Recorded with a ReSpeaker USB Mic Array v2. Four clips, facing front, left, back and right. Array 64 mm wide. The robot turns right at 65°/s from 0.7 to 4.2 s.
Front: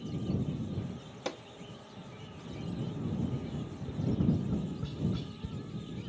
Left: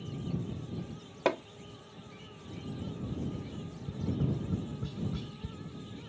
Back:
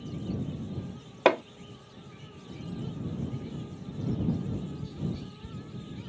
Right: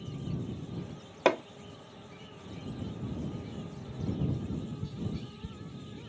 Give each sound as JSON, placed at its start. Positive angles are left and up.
{"t": 1.2, "sound": "hammering", "azimuth_deg": -165}
{"t": 3.7, "sound": "tapping", "azimuth_deg": 10}